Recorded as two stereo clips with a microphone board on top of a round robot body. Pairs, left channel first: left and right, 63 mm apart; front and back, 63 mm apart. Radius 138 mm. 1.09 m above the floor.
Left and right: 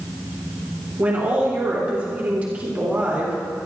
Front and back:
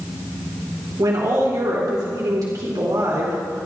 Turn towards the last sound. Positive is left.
turn(degrees=-160)